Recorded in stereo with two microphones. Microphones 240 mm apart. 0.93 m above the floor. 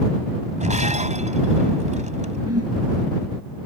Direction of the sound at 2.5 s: 85° right.